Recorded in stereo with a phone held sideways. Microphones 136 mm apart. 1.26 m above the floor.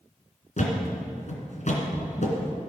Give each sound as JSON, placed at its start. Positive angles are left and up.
{"t": 0.6, "sound": "a thud", "side_deg": 60, "distance_m": 2.5}